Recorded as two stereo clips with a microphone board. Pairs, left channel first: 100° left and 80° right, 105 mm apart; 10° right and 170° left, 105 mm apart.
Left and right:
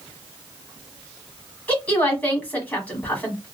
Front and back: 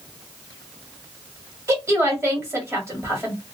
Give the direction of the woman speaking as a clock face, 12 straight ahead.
7 o'clock.